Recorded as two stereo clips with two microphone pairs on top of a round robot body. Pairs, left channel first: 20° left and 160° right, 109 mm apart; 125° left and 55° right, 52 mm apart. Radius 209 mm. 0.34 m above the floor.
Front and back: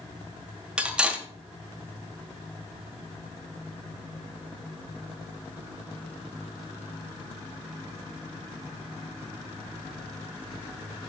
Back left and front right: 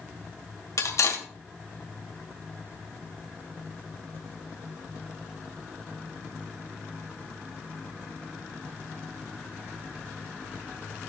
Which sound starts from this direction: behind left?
Cutlery clinking, at 0.8 s.